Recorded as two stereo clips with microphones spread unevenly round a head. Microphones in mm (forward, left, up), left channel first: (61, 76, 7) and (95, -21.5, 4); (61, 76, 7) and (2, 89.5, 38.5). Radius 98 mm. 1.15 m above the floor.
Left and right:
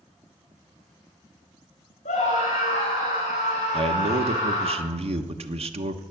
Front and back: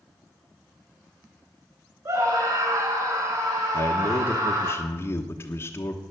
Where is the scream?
150° left, 4 m; by 4.7 s 155° left, 5.5 m.